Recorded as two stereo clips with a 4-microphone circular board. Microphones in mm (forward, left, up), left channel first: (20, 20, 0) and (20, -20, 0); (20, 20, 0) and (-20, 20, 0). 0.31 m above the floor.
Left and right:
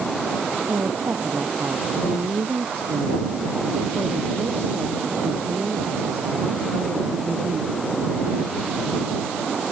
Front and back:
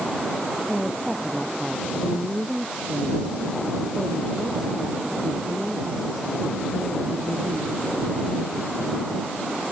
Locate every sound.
0.7 s a woman speaking: 95° right; by 8.0 s 105° right